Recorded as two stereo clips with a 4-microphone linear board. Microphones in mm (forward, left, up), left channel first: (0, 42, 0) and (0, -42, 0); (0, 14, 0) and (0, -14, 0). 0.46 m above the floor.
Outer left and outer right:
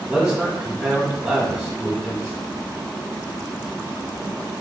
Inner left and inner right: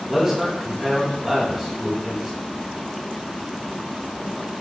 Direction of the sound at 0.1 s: 15° right (ahead or behind).